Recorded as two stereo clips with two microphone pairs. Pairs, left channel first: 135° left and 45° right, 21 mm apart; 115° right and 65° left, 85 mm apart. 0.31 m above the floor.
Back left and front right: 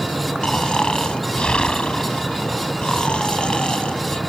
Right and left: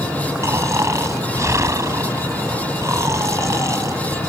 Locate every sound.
0.4 s snoring: 110° left